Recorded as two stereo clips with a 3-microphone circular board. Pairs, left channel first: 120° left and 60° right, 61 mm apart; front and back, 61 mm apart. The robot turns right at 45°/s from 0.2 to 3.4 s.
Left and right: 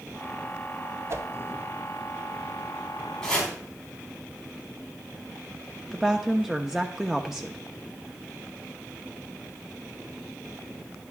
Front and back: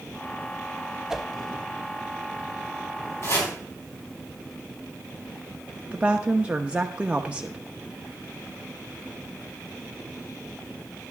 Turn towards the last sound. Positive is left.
turn(degrees=-130)